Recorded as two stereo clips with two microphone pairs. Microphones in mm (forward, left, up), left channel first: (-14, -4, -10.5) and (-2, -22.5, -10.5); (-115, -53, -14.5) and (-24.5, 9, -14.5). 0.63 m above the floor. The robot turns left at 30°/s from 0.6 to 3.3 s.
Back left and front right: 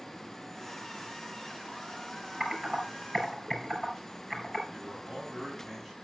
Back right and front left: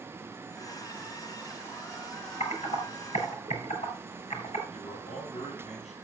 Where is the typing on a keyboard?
135° right, 6.5 m; by 4.6 s 165° right, 6.5 m.